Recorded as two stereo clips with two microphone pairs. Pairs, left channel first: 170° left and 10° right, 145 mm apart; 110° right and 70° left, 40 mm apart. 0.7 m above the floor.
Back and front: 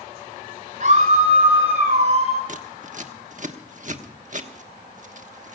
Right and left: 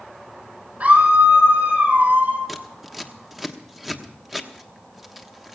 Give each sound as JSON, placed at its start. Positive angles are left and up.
{"t": 0.8, "sound": "a scream", "azimuth_deg": 25, "distance_m": 6.0}
{"t": 2.5, "sound": "scissors", "azimuth_deg": -10, "distance_m": 1.1}